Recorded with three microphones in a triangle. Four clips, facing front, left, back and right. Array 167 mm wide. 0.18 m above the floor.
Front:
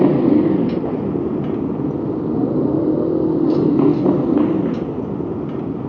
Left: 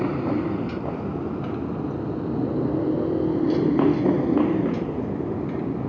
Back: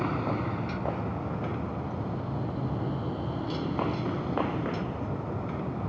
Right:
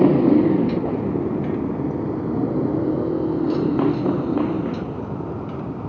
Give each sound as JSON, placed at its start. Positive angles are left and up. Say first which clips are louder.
{"t": 0.0, "sound": "a motorcycle", "louder": "right 10 dB, front 17 dB", "azimuth_deg": -30}